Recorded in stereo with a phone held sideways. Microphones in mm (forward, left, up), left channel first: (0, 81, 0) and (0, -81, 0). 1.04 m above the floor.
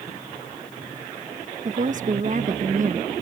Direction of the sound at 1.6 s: 55° right (ahead or behind).